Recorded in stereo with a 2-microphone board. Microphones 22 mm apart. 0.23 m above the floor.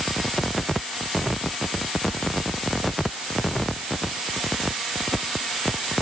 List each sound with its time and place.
Only background noise.